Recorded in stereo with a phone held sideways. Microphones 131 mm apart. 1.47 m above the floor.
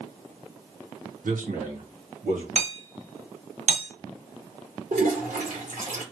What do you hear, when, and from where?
1.2 s a man speaking: 80° right, 1.0 m; by 2.5 s 85° right, 1.8 m
2.5 s hammering: 60° right (ahead or behind), 1.4 m
4.9 s a toilet flushing: 80° right, 1.7 m